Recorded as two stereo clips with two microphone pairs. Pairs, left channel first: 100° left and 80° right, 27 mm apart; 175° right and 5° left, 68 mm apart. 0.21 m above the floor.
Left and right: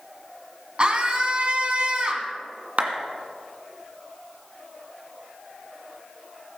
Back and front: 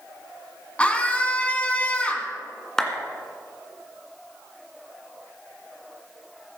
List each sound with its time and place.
0.8 s a scream: 110° right, 2 m
2.8 s a clap: 95° right, 1.9 m